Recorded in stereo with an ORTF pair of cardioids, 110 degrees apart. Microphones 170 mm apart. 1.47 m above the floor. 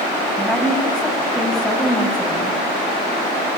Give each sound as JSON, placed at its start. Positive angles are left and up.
{"t": 0.4, "sound": "a woman speaking", "azimuth_deg": 5, "distance_m": 8.5}